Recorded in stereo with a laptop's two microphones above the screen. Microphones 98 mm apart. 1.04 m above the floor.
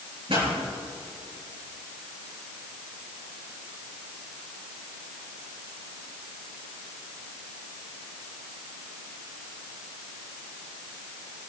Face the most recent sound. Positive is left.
turn(degrees=-70)  # may be behind; listen again after turning